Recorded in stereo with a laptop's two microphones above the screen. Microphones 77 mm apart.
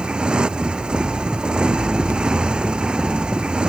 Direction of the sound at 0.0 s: 10° right (ahead or behind).